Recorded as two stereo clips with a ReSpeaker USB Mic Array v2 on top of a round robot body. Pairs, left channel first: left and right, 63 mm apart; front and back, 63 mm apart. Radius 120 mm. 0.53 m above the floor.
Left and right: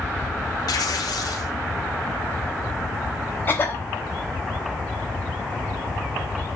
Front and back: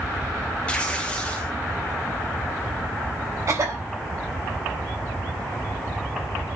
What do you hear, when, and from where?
0.7 s tearing paper: 70° left, 1.9 m
3.5 s a cough: 145° left, 3.5 m